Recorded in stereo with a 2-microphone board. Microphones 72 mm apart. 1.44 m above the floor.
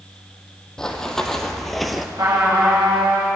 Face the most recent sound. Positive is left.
turn(degrees=-60)  # may be behind; listen again after turning